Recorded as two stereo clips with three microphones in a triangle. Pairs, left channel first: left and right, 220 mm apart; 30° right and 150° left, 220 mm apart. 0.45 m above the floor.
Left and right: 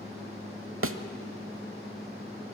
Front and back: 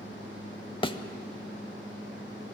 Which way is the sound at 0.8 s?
100° right.